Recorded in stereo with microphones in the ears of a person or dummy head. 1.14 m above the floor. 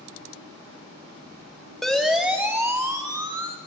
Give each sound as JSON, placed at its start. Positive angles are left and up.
{"t": 1.8, "sound": "a siren", "side_deg": 0, "distance_m": 2.5}